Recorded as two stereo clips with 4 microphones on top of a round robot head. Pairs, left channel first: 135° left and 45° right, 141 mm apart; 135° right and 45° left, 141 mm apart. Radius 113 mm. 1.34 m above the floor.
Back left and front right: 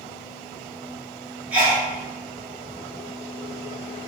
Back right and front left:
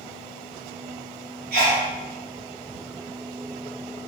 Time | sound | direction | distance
1.5 | a sneeze | 35° left | 1.8 m